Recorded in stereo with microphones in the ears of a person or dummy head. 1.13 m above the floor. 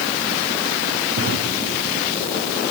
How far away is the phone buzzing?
I don't hear a phone buzzing.